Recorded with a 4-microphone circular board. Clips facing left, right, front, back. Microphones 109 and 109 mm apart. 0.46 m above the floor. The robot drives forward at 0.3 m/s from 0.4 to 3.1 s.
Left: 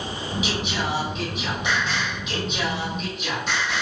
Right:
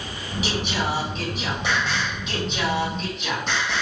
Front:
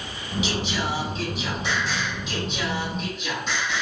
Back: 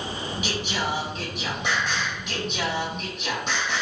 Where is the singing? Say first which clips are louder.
Right 3 dB, front 1 dB; 140° right, 2.0 m; by 3.8 s 150° right, 2.5 m.